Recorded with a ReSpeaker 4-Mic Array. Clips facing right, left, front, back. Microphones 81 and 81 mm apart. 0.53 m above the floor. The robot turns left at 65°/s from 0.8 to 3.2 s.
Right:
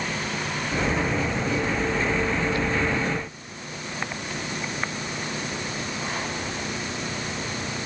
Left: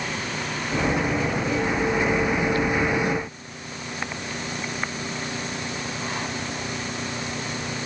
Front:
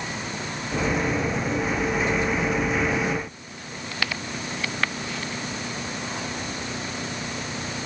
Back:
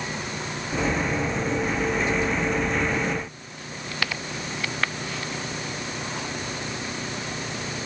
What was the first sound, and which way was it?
Only background noise.